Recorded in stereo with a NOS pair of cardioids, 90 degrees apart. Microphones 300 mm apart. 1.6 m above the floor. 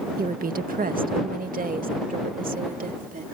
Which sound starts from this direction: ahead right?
A woman speaking, at 0.2 s.